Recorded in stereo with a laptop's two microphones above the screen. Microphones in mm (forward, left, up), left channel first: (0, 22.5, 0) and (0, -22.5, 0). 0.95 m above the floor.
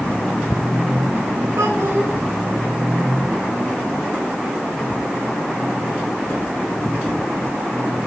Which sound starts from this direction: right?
A child speaking, at 1.6 s.